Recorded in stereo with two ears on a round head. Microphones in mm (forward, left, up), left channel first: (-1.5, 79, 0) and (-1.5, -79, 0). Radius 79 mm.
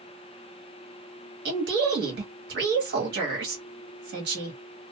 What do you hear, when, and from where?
1.4 s a woman speaking: 60° right (ahead or behind), 1.6 m